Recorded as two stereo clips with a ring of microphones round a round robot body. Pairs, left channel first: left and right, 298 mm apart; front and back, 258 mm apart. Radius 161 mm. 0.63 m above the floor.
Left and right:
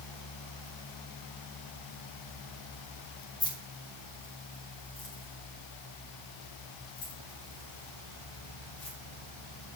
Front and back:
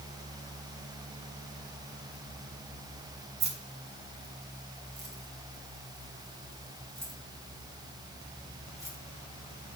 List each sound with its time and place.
3.4 s keys jangling: 170° left, 1.7 m; by 9.0 s 100° left, 5.5 m